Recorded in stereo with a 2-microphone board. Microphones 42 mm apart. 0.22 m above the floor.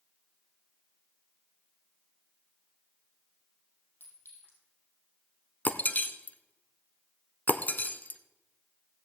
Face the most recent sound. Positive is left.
turn(degrees=50)  # may be behind; listen again after turning